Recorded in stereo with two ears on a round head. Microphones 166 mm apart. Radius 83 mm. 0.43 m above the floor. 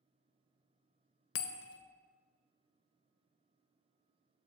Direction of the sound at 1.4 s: 75° left (ahead or behind).